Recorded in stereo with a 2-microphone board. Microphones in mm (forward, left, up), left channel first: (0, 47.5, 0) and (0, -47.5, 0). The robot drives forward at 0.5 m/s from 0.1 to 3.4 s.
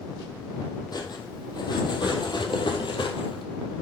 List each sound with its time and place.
0.9 s cutlery clinking: 45° left (ahead or behind), 2.5 m; by 3.4 s 65° left (ahead or behind), 2 m